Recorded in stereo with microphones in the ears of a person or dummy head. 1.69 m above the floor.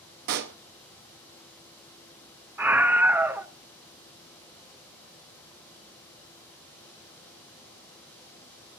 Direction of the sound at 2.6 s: 10° right (ahead or behind).